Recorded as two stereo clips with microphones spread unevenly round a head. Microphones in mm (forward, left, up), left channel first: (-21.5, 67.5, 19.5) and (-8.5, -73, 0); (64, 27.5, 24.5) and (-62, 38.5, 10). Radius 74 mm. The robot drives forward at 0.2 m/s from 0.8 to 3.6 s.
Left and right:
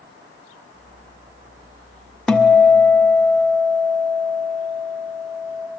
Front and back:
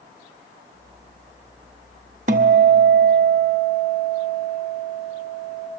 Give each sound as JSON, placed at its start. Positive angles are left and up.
{"t": 2.3, "sound": "a guitar", "azimuth_deg": 170, "distance_m": 1.0}